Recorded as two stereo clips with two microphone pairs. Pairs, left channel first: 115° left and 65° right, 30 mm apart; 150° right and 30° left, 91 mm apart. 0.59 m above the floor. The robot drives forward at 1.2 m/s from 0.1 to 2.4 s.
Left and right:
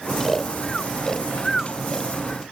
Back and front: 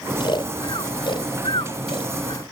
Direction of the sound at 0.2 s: 170° right.